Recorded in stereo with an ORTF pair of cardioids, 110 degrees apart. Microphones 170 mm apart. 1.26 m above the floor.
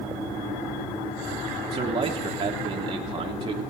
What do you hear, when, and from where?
1.7 s a man speaking: 30° right, 0.9 m